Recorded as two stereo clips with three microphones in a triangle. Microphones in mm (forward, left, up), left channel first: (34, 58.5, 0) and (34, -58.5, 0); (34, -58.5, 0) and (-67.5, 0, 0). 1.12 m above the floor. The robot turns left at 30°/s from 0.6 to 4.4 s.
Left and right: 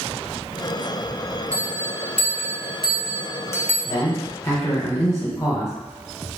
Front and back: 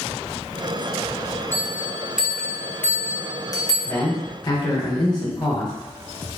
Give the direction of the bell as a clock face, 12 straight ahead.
9 o'clock.